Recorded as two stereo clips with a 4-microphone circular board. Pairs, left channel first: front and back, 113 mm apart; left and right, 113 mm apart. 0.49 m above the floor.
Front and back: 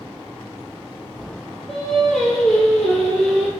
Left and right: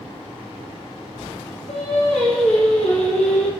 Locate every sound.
1.7 s singing: 85° left, 3 m